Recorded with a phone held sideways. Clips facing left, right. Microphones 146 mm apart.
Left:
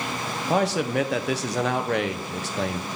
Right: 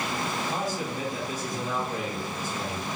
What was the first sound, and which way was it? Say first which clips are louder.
A man speaking: left 8 dB; 80° left.